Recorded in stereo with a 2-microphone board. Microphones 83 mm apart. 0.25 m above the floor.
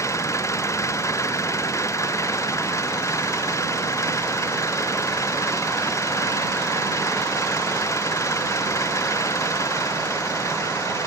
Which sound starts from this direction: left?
An engine running, at 0.0 s.